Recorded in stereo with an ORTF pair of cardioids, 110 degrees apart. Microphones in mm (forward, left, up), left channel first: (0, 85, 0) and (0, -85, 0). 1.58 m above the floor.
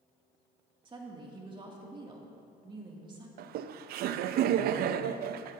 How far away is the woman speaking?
About 2.5 m.